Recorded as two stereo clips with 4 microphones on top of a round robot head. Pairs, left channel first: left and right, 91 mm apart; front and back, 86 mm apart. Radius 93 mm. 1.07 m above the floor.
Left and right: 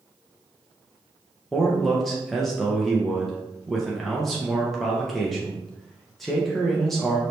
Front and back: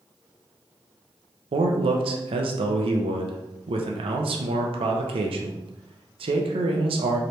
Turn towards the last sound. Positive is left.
turn(degrees=175)